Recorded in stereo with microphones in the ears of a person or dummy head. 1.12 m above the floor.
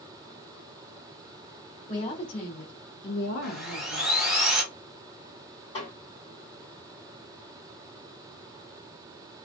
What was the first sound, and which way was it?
A woman speaking, 35° left (ahead or behind).